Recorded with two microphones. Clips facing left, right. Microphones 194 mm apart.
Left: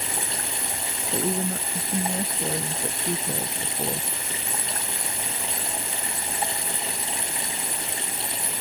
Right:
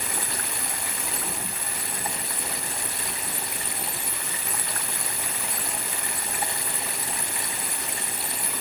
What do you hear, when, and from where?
0.0 s running water: 25° left (ahead or behind)
1.1 s a woman speaking: 60° left (ahead or behind)